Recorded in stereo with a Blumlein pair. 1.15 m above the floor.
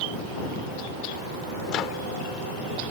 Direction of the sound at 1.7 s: 35° left.